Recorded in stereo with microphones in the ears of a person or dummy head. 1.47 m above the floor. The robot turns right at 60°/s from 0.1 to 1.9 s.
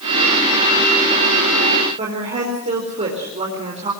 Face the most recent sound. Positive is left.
turn(degrees=-30)  # may be behind; listen again after turning